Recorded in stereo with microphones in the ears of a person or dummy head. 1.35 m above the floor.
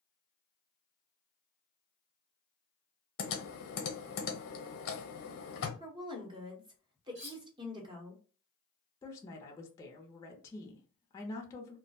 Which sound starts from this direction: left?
Typing on a keyboard, at 3.2 s.